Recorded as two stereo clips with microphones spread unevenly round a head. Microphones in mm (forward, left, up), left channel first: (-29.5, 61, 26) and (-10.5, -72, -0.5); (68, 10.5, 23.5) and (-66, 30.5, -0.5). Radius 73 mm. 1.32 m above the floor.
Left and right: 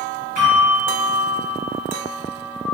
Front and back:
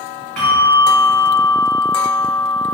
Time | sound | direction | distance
0.4 | a bell | 85° right | 1.4 m